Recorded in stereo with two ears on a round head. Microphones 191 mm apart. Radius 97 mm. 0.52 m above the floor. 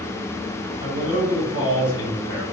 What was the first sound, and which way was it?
A man speaking, 55° left (ahead or behind).